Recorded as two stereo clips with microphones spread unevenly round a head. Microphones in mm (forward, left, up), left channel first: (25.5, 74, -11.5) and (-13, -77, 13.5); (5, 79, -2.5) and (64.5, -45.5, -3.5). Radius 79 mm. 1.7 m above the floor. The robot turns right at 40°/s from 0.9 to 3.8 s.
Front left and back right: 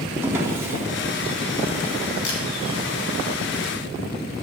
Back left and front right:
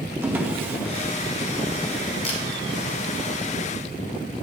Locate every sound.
0.2 s a drawer: 120° right, 1.3 m
2.2 s a camera shutter: 75° left, 3 m; by 2.4 s 80° left, 3 m